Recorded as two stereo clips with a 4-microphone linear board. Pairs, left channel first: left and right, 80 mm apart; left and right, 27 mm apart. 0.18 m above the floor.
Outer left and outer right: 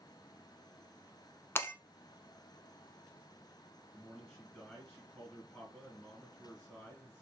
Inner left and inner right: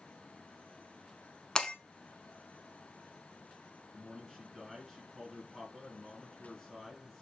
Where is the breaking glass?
30° left (ahead or behind), 0.7 m.